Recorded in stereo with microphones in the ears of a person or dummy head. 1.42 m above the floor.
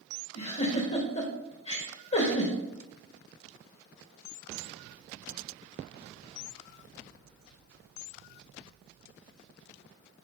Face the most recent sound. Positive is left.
turn(degrees=35)  # may be behind; listen again after turning